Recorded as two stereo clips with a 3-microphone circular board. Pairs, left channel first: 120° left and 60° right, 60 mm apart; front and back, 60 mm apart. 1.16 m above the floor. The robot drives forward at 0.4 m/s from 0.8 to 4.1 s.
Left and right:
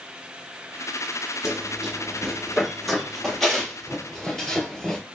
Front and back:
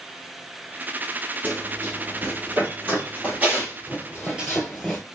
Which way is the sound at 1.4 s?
135° right.